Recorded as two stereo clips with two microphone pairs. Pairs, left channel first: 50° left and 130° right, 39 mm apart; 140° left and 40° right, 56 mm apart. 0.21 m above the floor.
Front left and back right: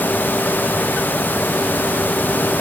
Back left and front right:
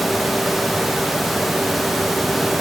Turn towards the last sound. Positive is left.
No sound to turn to.